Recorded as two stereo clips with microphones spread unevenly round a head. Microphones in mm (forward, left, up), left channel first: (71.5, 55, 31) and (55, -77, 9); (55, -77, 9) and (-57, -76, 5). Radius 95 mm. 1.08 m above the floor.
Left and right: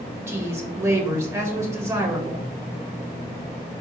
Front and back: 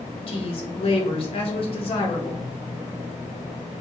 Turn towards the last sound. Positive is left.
turn(degrees=-30)